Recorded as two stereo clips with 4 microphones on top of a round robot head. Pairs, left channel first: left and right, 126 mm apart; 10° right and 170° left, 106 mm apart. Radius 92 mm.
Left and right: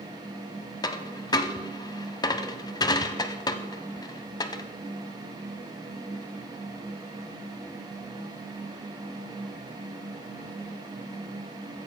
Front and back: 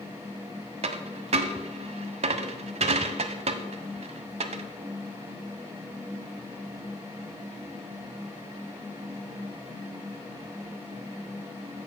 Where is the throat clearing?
I don't hear throat clearing.